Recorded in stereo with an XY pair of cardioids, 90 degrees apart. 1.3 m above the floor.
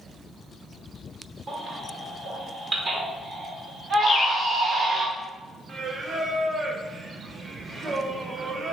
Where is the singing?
40° right, 0.7 m.